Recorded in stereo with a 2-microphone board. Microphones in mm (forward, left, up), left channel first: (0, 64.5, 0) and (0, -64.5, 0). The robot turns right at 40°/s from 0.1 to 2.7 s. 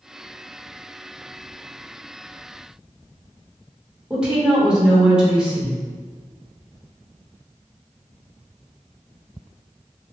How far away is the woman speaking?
About 1.0 m.